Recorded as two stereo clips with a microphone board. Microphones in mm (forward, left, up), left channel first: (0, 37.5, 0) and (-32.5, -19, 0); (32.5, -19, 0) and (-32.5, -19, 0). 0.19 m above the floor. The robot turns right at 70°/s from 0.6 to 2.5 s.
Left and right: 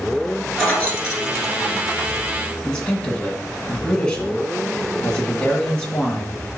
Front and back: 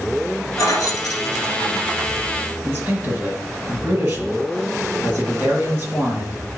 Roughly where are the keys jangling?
Ahead.